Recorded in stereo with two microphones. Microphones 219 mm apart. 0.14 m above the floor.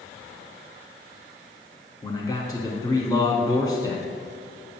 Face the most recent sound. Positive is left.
turn(degrees=15)  # may be behind; listen again after turning